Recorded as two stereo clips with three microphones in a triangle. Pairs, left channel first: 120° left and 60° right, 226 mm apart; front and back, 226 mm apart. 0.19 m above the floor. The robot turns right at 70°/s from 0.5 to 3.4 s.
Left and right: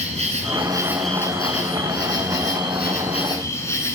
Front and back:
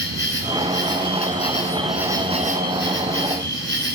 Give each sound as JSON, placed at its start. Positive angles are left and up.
{"t": 0.0, "sound": "an insect", "azimuth_deg": -5, "distance_m": 1.3}